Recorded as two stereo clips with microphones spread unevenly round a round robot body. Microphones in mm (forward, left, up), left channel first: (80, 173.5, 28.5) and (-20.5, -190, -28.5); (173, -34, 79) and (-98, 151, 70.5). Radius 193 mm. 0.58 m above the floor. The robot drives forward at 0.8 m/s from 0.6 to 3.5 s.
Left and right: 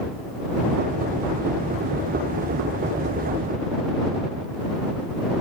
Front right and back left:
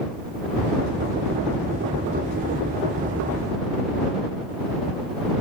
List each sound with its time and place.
Only background noise.